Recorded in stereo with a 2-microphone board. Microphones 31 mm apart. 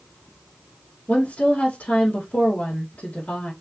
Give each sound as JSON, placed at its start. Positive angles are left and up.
{"t": 1.1, "sound": "a woman speaking", "side_deg": 85, "distance_m": 2.5}